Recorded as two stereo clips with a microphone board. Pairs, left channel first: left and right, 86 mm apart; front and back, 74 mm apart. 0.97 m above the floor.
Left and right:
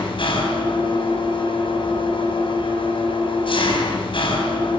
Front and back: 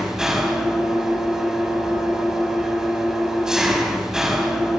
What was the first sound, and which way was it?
An engine running, 100° left.